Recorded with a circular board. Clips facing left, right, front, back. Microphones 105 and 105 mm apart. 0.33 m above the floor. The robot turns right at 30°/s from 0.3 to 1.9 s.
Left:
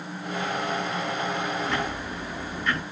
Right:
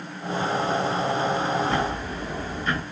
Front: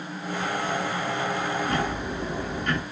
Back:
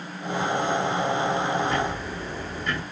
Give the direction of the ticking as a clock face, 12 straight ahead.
1 o'clock.